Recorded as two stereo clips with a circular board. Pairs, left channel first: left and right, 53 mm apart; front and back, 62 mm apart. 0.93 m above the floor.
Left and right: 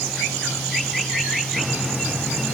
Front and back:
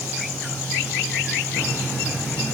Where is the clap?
I don't hear a clap.